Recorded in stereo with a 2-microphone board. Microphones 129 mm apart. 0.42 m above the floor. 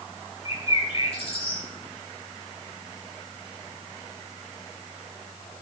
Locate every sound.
0.5 s a bird: 50° left (ahead or behind), 1.9 m